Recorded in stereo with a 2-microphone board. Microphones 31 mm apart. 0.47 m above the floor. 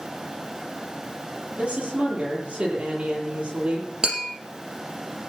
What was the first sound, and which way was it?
A woman speaking, 35° right (ahead or behind).